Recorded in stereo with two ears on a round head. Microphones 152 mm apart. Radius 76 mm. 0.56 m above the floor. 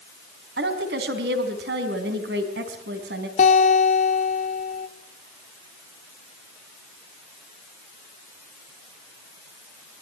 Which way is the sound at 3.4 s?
50° left (ahead or behind).